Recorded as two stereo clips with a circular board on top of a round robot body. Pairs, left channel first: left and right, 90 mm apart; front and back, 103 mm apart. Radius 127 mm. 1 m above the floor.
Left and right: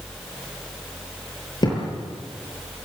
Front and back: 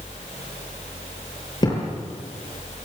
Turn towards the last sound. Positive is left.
turn(degrees=50)